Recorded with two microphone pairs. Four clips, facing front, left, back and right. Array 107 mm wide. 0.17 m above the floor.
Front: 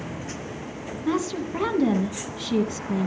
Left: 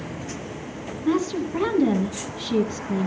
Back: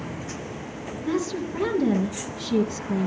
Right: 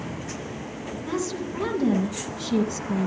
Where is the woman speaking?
25° left, 1.9 m.